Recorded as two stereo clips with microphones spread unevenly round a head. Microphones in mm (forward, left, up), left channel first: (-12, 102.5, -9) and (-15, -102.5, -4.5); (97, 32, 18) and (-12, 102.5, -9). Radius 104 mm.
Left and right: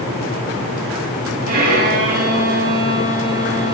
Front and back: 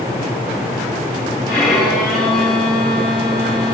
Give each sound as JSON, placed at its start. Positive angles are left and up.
{"t": 1.5, "sound": "a violin", "azimuth_deg": -135, "distance_m": 3.5}